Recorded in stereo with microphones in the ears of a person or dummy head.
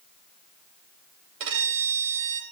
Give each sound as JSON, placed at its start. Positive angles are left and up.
{"t": 1.4, "sound": "a violin", "side_deg": -75, "distance_m": 2.5}